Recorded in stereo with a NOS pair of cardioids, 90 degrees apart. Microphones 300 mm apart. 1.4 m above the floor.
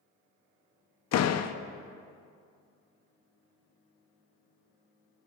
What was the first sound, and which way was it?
A door slam, 60° left.